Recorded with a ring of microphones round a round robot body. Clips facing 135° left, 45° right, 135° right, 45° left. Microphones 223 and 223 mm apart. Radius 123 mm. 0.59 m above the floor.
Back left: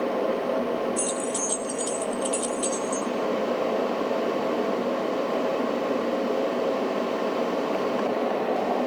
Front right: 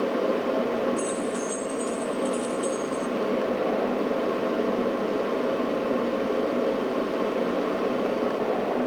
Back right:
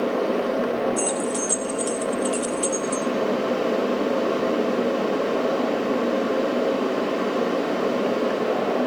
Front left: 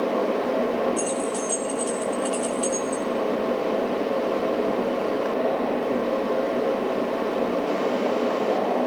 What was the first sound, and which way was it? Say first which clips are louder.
Keys jangling: front right 1 dB, back right 1 dB; 155° left.